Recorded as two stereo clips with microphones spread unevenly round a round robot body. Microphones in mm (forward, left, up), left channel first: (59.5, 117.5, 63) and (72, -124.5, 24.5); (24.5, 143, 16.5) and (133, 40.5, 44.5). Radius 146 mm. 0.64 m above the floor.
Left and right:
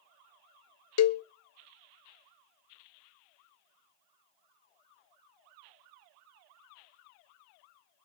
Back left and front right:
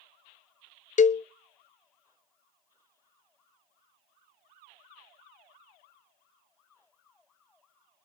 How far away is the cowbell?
About 0.6 m.